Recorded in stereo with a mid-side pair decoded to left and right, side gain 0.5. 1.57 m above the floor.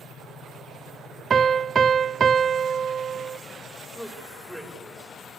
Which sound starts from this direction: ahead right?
A piano, at 1.3 s.